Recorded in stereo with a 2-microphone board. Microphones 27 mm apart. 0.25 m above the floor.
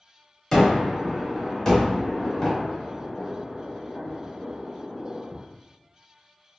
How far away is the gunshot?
About 1.4 m.